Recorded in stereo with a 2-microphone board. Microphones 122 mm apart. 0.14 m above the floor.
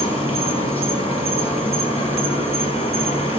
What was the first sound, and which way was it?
An insect, 45° left (ahead or behind).